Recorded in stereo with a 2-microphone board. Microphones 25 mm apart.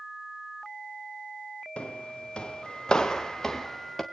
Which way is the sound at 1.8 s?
50° left (ahead or behind).